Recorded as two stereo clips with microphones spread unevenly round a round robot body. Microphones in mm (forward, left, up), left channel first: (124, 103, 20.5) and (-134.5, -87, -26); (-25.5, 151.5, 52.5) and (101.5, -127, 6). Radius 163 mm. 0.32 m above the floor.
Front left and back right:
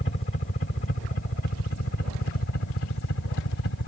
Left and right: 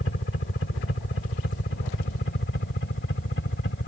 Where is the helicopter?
80° left; by 3.9 s 65° left.